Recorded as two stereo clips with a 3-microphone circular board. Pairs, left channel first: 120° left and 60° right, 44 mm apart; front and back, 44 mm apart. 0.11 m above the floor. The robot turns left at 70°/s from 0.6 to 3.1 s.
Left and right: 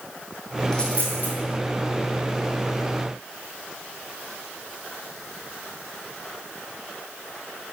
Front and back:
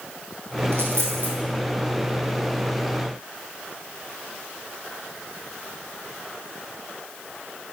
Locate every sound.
0.7 s a dropped coin: 165° right, 2 m; by 1.4 s 150° left, 2 m